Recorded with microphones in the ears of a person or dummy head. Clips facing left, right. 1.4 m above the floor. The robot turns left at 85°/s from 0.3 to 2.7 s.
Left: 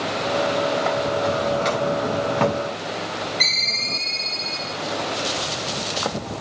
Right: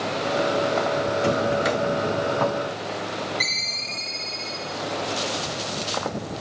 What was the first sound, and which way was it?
A drawer, 125° right.